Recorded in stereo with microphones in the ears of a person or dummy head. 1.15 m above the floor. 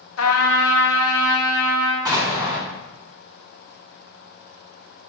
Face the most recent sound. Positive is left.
turn(degrees=-20)  # may be behind; listen again after turning